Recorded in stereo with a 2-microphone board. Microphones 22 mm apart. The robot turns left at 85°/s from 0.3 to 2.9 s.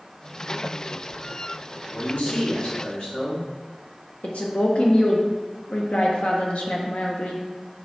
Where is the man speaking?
135° left, 1.7 m; by 3.5 s 50° left, 1.7 m.